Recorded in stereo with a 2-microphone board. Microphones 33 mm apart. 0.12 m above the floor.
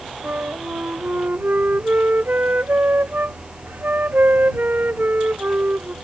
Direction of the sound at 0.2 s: 80° right.